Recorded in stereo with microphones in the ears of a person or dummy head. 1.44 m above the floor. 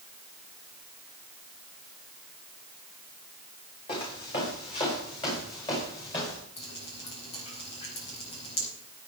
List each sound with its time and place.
3.9 s footsteps: 30° left (ahead or behind), 5 m; by 6.4 s 25° left (ahead or behind), 6 m
6.6 s dripping: 35° left (ahead or behind), 4.5 m